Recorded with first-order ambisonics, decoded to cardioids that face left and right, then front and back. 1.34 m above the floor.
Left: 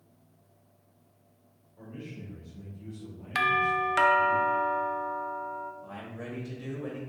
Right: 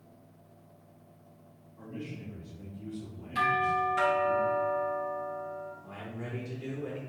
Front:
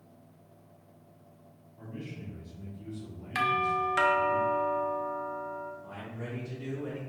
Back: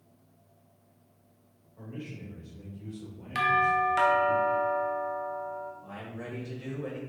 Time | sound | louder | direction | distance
1.8 | a man speaking | right 2 dB, back 1 dB | 160° left | 2.0 m
3.4 | a doorbell | left 2 dB, back 3 dB | 85° left | 0.6 m
5.8 | a man speaking | left 1 dB, back 1 dB | 145° left | 1.5 m